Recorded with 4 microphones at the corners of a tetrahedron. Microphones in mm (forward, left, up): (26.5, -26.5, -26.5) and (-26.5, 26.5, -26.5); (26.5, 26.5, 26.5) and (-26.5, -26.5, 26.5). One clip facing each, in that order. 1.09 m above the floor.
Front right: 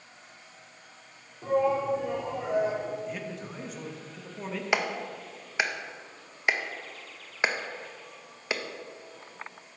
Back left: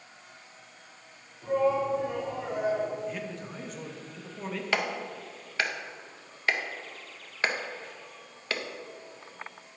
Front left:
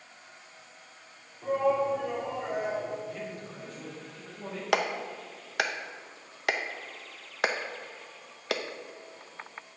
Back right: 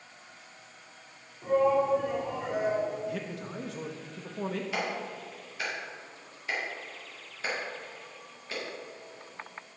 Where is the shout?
40° right, 2.5 m; by 3.0 s 50° right, 4 m.